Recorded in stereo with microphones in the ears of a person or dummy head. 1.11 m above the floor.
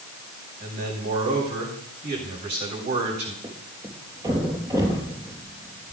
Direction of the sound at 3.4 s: 20° right (ahead or behind).